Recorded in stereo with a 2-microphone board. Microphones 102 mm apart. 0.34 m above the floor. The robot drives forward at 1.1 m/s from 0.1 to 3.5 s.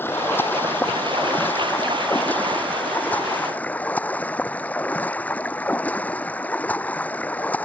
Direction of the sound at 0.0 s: 20° left (ahead or behind).